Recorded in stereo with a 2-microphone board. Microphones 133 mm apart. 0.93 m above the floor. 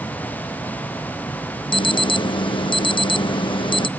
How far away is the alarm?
About 0.5 m.